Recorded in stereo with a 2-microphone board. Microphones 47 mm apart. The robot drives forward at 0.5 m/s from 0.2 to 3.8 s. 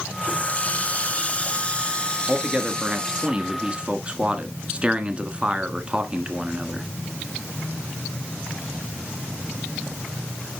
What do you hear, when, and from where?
0.2 s a running tap: 30° left (ahead or behind), 1.0 m; by 3.3 s 15° left (ahead or behind), 1.8 m
2.3 s a man speaking: 15° right (ahead or behind), 1.8 m; by 6.9 s 20° right (ahead or behind), 1.4 m